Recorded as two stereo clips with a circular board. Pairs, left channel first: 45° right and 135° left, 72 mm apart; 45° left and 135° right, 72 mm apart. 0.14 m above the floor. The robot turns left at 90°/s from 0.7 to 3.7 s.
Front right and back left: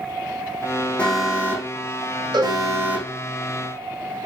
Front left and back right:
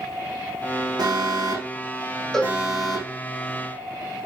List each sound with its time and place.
1.0 s an alarm: 120° right, 6 m; by 3.1 s 55° left, 6 m
2.3 s a cowbell: 130° left, 4 m; by 2.6 s 110° left, 4 m